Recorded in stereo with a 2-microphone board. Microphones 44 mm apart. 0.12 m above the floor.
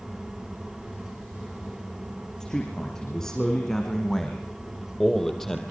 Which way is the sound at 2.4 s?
10° left (ahead or behind).